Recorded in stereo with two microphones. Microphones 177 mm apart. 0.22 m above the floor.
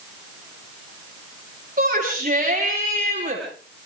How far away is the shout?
About 9.5 m.